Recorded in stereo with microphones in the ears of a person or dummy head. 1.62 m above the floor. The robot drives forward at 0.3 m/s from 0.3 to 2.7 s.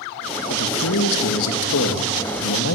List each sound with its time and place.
0.5 s a man speaking: 85° left, 2.5 m; by 2.8 s 70° left (ahead or behind), 2.5 m